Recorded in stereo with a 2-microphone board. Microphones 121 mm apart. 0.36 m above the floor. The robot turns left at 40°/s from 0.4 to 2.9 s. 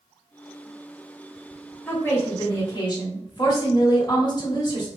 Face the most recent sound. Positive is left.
turn(degrees=115)